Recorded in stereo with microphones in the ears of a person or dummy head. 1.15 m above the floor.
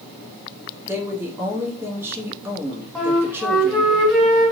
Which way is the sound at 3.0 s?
Centre (ahead or behind).